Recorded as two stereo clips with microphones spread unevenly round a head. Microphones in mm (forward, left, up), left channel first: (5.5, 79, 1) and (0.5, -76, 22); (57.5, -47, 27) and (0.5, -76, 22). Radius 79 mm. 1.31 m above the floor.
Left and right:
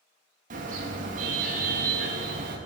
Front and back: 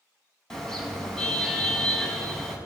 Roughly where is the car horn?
Ahead right.